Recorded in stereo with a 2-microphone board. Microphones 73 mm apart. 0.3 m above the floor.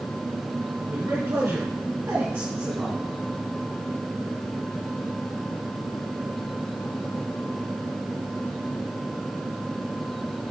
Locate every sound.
0.9 s a man speaking: 40° right (ahead or behind), 4.5 m; by 3.1 s 20° right (ahead or behind), 3 m